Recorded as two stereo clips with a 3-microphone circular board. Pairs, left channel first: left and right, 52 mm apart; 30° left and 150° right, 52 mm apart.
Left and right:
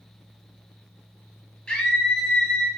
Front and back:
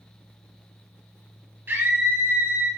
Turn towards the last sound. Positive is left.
turn(degrees=170)